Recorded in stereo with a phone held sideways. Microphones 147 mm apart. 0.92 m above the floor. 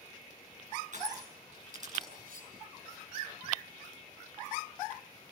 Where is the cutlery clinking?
80° right, 7.5 m.